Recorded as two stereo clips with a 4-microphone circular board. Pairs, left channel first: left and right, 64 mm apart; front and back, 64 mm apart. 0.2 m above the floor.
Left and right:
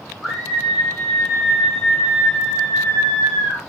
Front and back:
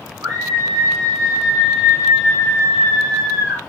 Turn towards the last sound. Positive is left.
turn(degrees=160)